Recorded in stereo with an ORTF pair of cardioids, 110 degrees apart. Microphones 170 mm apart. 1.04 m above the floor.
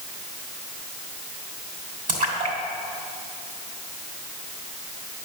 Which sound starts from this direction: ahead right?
A splash, at 2.1 s.